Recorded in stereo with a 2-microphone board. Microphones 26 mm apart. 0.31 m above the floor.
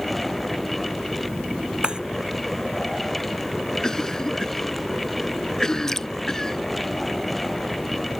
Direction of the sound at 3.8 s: 20° left (ahead or behind).